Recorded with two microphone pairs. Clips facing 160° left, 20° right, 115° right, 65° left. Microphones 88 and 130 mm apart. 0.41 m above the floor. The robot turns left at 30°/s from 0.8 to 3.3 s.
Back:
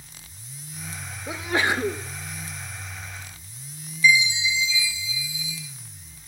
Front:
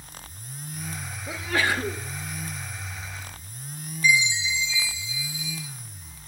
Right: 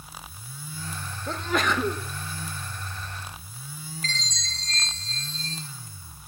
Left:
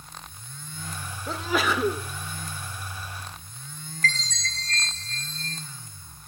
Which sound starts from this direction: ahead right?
A chime, at 4.0 s.